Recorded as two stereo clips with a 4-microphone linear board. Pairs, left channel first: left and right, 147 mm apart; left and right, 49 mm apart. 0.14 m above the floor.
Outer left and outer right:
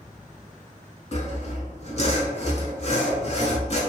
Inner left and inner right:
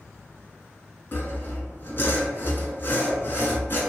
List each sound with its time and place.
1.1 s sawing: 45° left (ahead or behind), 0.7 m